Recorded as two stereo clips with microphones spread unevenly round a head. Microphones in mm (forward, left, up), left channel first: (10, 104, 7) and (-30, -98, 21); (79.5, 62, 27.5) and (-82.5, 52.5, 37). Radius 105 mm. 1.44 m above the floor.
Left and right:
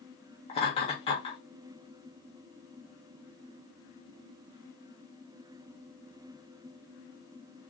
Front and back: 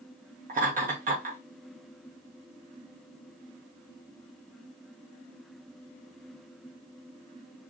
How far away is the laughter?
About 1.5 m.